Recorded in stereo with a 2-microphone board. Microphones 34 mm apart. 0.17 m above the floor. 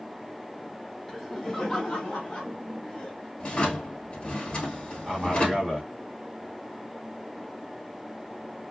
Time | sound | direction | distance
1.1 | laughter | centre (ahead or behind) | 1.1 m
3.4 | a drawer | 35° left (ahead or behind) | 1.5 m
5.1 | a man speaking | 20° right (ahead or behind) | 1.2 m